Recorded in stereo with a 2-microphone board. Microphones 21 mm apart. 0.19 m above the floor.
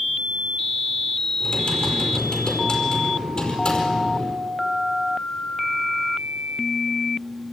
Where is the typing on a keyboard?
45° left (ahead or behind), 5 m.